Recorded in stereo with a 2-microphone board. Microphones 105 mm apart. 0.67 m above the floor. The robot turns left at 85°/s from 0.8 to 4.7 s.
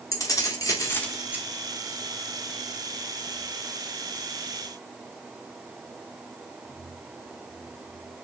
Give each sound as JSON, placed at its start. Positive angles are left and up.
{"t": 0.1, "sound": "keys jangling", "azimuth_deg": 30, "distance_m": 1.0}